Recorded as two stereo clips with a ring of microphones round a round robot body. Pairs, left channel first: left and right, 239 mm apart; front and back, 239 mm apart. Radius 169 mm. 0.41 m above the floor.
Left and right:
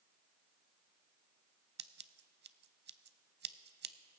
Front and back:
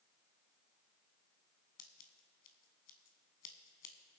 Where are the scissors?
40° right, 0.6 m.